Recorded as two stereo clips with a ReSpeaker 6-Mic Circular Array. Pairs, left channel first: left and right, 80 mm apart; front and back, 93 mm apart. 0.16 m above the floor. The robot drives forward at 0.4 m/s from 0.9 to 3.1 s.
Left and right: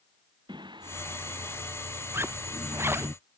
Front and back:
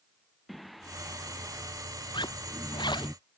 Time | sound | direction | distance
0.5 | singing | 90° right | ?
2.1 | a zipper | 30° right | ?